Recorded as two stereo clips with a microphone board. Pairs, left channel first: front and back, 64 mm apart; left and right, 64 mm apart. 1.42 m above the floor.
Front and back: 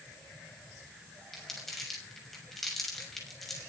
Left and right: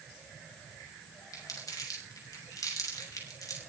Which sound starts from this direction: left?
Crumpling, at 1.3 s.